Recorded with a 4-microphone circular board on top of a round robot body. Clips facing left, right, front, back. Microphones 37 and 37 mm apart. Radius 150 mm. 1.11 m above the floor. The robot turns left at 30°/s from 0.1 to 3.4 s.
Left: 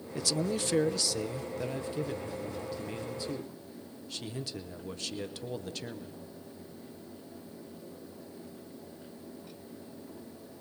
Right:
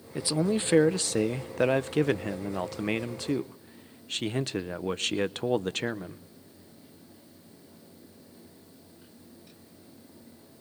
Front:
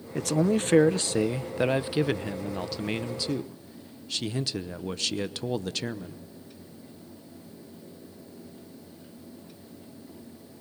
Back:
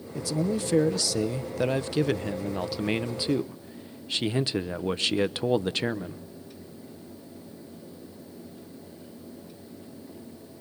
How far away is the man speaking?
About 0.8 m.